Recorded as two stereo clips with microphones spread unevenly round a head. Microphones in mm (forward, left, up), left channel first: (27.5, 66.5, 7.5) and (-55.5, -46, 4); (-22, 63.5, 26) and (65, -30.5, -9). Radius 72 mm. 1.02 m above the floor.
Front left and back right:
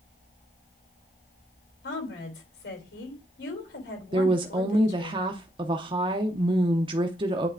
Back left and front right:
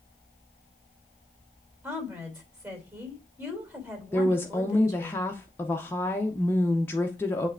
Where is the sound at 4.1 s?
140° right, 0.7 m.